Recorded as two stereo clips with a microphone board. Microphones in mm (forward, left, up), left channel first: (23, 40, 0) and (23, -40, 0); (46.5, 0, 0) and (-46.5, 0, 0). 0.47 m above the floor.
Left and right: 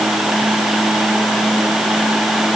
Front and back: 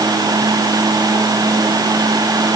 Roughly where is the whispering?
No whispering in this recording.